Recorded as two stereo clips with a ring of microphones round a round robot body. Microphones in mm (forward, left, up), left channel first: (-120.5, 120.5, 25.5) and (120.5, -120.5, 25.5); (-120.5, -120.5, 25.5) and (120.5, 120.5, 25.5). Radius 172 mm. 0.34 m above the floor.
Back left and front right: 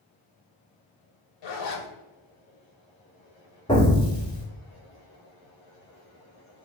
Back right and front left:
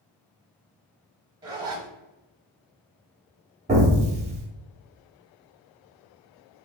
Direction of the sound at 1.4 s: 120° left.